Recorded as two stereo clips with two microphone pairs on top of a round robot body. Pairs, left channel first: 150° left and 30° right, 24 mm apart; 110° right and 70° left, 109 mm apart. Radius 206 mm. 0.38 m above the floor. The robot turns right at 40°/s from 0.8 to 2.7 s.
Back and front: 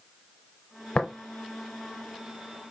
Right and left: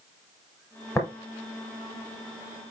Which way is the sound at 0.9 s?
175° right.